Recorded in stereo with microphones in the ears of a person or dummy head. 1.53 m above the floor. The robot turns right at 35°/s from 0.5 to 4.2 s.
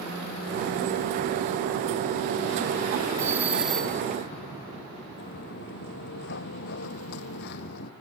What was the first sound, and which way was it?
A doorbell, 20° right (ahead or behind).